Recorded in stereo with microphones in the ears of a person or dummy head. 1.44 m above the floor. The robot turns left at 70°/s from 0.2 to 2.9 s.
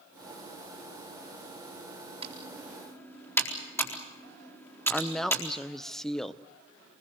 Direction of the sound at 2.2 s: 35° right (ahead or behind).